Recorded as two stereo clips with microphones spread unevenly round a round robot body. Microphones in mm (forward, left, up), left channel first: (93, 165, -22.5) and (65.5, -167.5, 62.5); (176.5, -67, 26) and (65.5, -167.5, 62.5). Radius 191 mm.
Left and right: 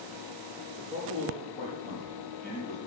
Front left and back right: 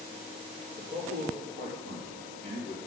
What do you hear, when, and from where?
0.8 s a man speaking: 165° right, 6.5 m; by 2.8 s 170° left, 6.5 m